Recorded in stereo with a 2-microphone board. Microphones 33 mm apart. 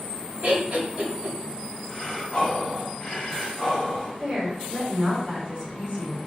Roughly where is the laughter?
Right.